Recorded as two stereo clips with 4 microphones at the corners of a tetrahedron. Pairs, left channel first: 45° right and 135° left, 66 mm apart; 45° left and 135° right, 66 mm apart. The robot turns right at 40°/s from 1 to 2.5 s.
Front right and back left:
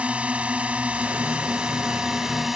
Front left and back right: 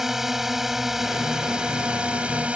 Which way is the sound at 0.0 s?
150° left.